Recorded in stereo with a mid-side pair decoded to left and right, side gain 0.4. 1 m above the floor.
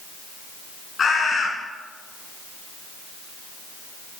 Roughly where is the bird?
Ahead left.